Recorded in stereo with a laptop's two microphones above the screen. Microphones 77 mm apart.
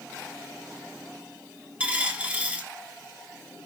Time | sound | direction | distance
1.8 | a dropped coin | 20° right (ahead or behind) | 0.8 m